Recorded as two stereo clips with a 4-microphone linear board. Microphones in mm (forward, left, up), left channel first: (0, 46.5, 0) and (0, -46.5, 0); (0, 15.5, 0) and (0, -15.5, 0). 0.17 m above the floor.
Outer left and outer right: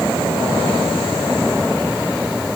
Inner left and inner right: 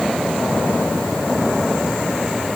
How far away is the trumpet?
No trumpet in this recording.